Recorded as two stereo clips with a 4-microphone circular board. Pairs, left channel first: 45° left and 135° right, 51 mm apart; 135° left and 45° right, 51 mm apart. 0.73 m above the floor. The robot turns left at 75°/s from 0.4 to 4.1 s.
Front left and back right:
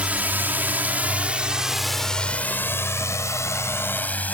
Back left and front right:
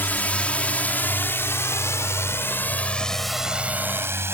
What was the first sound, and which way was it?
A drone, 170° left.